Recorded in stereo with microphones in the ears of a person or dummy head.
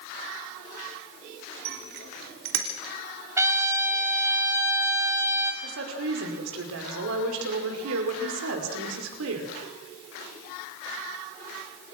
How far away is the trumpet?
About 2.5 m.